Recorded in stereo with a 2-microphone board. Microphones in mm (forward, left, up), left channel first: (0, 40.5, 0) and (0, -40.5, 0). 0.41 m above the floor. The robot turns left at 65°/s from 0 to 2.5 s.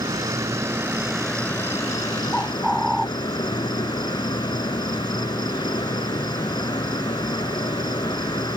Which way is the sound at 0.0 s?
100° right.